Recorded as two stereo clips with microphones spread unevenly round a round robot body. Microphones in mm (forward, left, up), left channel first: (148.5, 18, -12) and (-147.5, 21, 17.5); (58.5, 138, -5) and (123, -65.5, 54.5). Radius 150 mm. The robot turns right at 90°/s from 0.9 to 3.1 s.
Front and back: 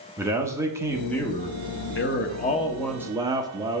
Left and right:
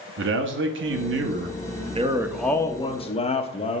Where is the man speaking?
95° right, 1.0 m; by 3.8 s 100° left, 1.0 m.